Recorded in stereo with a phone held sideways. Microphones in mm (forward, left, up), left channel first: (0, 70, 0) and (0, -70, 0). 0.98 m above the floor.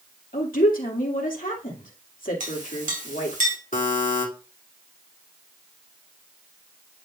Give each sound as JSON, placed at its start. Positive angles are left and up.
{"t": 0.3, "sound": "a woman speaking", "side_deg": 80, "distance_m": 2.5}
{"t": 2.4, "sound": "a clink", "side_deg": -70, "distance_m": 3.0}
{"t": 3.7, "sound": "a buzzer", "side_deg": 70, "distance_m": 2.5}